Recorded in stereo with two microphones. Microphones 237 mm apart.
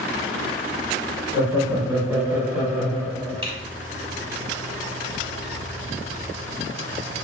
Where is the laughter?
10° right (ahead or behind), 1.2 m; by 3.5 s 5° left (ahead or behind), 1.1 m.